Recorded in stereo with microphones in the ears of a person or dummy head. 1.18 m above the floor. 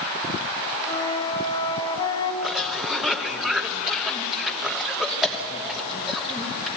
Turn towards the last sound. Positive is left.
turn(degrees=0)  # may be behind; listen again after turning